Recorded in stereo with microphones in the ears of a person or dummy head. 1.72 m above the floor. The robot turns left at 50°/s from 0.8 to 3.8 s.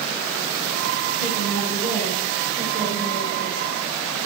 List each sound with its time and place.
1.2 s a woman speaking: 45° left, 9 m; by 4.3 s 85° right, 9 m